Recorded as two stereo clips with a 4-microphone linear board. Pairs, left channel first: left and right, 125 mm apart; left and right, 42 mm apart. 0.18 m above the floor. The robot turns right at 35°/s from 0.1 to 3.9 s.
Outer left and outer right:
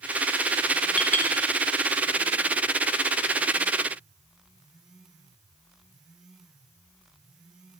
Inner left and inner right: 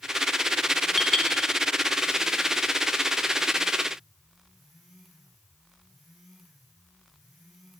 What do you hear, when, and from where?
1.0 s a clink: 10° left (ahead or behind), 1.0 m; by 1.3 s 20° left (ahead or behind), 1.0 m